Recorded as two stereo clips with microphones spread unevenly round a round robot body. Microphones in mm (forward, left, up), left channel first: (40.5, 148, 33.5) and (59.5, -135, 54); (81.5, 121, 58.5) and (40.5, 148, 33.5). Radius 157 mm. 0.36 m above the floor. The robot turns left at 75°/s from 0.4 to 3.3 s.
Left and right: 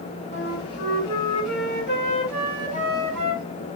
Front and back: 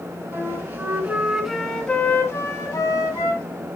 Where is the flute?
155° left, 3 m; by 3.4 s 60° right, 3 m.